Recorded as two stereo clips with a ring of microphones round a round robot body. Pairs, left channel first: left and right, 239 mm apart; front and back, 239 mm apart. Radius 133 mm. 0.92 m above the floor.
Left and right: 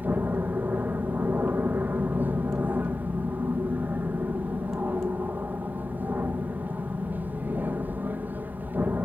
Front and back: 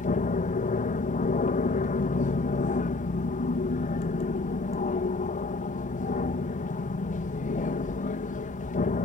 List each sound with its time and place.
0.0 s an aircraft: 15° right